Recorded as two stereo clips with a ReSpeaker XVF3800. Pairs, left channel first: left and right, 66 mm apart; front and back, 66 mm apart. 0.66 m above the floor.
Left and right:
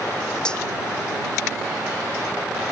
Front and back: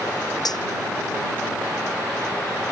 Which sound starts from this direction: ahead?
Cutlery clinking, at 0.5 s.